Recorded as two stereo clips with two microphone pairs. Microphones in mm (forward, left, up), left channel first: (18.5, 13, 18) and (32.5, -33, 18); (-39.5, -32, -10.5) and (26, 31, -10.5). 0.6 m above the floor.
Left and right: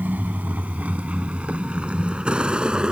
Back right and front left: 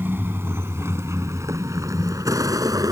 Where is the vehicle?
25° right; by 2.9 s 5° right.